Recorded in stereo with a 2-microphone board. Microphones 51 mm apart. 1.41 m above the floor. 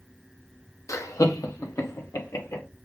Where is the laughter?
75° left (ahead or behind), 0.8 m; by 2.6 s 70° left (ahead or behind), 1.6 m.